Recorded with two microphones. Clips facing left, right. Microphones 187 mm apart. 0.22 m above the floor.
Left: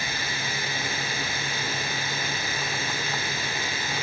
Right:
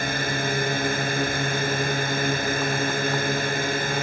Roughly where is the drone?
Right.